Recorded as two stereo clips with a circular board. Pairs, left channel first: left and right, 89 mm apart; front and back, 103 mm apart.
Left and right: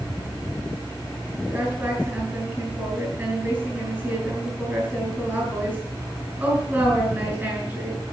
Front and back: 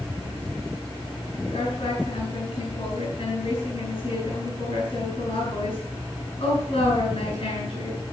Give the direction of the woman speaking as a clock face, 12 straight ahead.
1 o'clock.